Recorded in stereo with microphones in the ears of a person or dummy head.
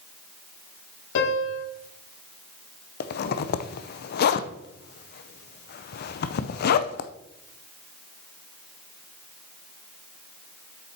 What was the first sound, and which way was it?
A piano, 75° left (ahead or behind).